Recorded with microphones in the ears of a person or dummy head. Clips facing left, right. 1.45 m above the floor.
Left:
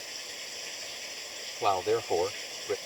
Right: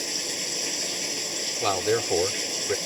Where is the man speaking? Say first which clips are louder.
Right 2 dB; 25° right (ahead or behind).